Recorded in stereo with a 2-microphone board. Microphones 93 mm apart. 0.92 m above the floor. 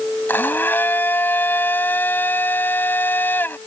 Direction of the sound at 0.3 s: 20° left (ahead or behind).